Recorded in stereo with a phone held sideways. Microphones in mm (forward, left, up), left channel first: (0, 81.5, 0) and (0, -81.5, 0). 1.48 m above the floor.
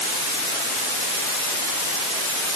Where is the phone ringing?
I don't hear a phone ringing.